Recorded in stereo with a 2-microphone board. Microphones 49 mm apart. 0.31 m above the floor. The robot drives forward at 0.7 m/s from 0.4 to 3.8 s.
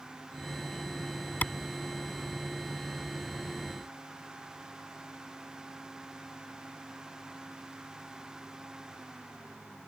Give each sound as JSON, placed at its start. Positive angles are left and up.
{"t": 1.4, "sound": "a clap", "side_deg": 40}